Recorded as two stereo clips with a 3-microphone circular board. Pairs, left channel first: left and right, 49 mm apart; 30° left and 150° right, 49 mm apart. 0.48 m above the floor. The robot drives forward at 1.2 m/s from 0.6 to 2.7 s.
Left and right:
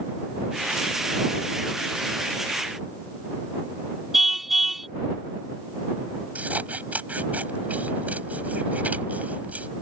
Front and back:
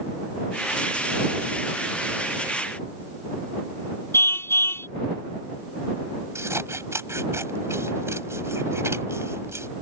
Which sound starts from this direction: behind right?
Scissors, at 6.3 s.